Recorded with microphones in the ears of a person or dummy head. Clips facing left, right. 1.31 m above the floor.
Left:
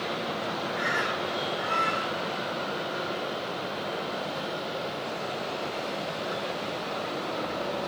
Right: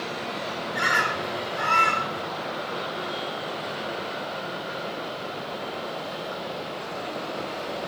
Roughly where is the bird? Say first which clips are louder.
Right 1 dB; right.